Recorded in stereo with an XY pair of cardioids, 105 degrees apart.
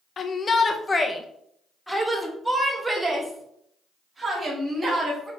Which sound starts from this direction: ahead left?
A shout, at 0.2 s.